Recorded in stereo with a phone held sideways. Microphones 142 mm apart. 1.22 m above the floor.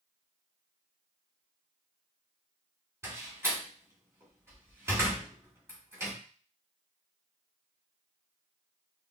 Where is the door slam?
20° right (ahead or behind), 2.0 m.